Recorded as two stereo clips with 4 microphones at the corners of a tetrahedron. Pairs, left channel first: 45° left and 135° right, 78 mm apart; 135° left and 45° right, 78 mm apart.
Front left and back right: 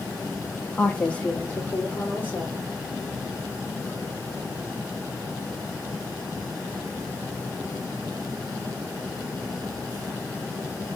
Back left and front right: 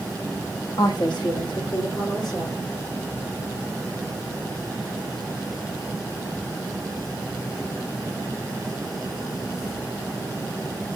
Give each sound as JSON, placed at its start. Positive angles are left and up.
{"t": 0.8, "sound": "a woman speaking", "azimuth_deg": 120, "distance_m": 0.8}